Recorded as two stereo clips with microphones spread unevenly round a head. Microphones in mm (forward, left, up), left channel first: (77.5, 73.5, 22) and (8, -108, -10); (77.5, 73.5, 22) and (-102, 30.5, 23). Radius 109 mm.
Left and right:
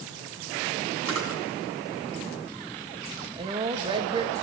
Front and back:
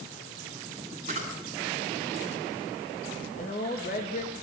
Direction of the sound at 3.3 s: 45° right.